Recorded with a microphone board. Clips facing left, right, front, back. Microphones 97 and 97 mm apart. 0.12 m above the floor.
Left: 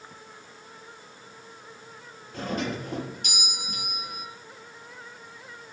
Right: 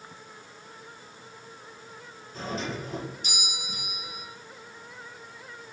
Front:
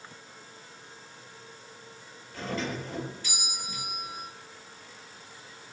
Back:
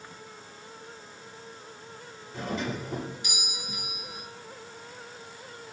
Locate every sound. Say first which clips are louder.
2.3 s a doorbell: left 3 dB, back 1 dB; 110° left, 4 m